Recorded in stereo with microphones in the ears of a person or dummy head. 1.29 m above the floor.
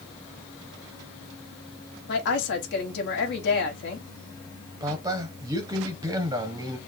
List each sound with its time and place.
2.1 s a woman speaking: 60° left (ahead or behind), 1.6 m
4.8 s a man speaking: 20° right (ahead or behind), 0.9 m